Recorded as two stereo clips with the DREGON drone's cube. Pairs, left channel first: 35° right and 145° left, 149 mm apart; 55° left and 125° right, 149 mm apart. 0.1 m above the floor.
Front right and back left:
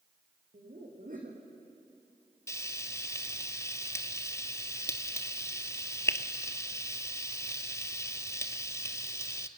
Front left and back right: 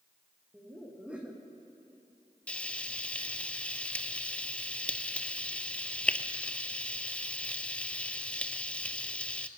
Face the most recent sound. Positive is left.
turn(degrees=-10)